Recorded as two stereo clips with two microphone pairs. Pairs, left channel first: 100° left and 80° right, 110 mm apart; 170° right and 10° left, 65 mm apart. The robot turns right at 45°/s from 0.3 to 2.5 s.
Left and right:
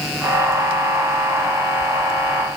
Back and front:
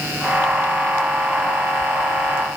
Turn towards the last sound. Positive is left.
No sound to turn to.